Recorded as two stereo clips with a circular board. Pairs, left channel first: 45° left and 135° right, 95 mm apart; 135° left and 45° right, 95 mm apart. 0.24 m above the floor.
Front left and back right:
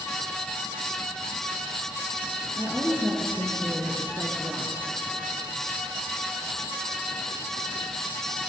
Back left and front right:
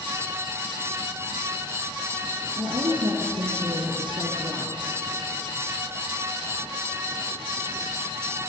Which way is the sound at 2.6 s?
30° right.